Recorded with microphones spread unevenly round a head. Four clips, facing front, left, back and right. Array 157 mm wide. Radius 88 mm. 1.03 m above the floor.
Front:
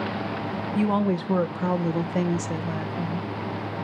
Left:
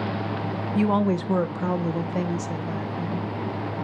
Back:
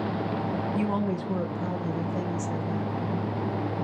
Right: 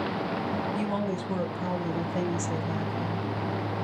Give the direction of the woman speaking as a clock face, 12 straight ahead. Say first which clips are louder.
Left 7 dB, front 8 dB; 9 o'clock.